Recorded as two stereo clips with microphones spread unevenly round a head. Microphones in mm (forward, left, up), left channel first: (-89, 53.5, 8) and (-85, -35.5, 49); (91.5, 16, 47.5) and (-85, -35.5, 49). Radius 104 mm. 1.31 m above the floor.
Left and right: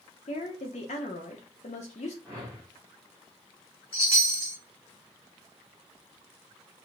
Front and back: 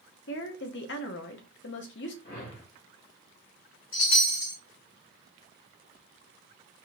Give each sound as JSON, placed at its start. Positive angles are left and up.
{"t": 0.3, "sound": "a woman speaking", "azimuth_deg": 50, "distance_m": 0.6}
{"t": 2.2, "sound": "a whoosh", "azimuth_deg": -20, "distance_m": 1.2}
{"t": 3.9, "sound": "a chime", "azimuth_deg": 40, "distance_m": 2.0}